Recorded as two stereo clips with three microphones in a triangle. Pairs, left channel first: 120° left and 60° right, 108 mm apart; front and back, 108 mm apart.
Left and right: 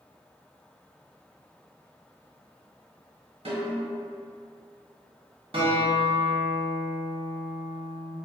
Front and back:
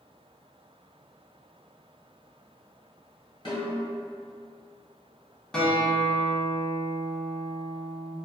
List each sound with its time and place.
3.5 s a snare drum: 40° right, 1.2 m
5.5 s a guitar: 85° right, 0.7 m